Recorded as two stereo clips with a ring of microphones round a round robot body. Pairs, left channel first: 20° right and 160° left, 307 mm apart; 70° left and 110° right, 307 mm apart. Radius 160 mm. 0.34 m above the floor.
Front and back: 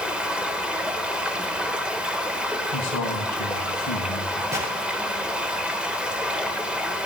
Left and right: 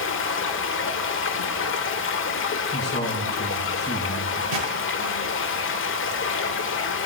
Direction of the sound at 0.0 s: 75° left.